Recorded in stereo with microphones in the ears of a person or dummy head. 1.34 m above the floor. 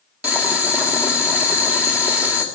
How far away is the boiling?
About 1.5 m.